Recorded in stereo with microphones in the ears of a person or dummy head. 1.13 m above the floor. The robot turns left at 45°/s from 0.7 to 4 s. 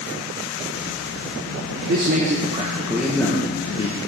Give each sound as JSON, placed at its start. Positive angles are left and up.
{"t": 1.9, "sound": "a man speaking", "azimuth_deg": -120, "distance_m": 0.6}